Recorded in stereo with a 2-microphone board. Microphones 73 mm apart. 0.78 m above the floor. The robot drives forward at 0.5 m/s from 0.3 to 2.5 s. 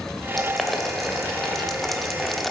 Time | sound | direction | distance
0.4 | boiling | centre (ahead or behind) | 1.7 m